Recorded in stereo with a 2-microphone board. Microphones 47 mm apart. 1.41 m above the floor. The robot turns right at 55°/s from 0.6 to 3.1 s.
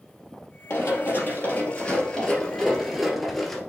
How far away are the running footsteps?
About 2.5 m.